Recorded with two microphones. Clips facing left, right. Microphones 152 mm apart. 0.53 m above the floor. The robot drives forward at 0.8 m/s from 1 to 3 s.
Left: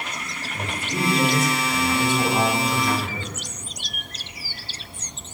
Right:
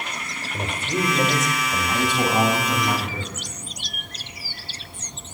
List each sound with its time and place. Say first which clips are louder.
0.5 s a man speaking: right 2 dB; 25° right (ahead or behind), 1.8 m; by 3.3 s 15° right (ahead or behind), 3 m